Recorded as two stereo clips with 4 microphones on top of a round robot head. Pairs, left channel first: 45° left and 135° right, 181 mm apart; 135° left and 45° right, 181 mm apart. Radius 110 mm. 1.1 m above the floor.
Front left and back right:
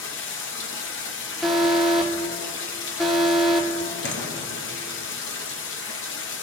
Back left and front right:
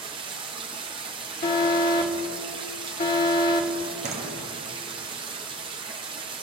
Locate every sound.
0.0 s running water: 20° left, 0.9 m
1.4 s an alarm: 135° left, 1.4 m
4.0 s a door slam: 10° left, 0.9 m